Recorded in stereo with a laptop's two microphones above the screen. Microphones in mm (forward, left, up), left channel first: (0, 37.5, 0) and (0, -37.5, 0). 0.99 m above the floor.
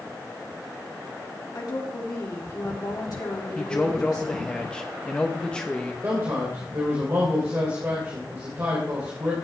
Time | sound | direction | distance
1.6 | a woman speaking | 60° left (ahead or behind) | 2.5 m
3.5 | a man speaking | 10° left (ahead or behind) | 1.1 m
6.0 | a man speaking | 40° right (ahead or behind) | 3 m